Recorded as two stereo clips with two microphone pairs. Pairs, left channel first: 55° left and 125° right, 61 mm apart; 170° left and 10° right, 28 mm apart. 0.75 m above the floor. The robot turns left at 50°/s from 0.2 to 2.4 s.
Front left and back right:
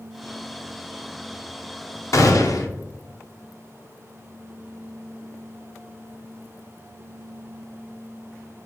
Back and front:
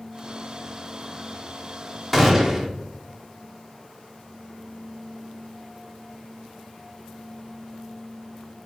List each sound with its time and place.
2.1 s a gunshot: 80° left, 0.5 m; by 2.7 s 70° left, 0.5 m